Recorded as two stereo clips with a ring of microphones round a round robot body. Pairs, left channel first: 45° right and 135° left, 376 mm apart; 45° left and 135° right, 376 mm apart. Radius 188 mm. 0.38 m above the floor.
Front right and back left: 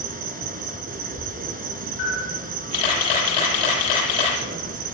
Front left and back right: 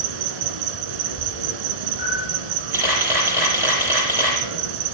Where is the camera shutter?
50° right, 9.5 m.